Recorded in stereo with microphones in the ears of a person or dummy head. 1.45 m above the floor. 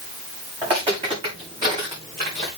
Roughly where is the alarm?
I don't hear an alarm.